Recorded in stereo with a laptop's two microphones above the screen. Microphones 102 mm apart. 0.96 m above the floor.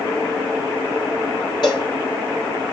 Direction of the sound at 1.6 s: 50° left (ahead or behind).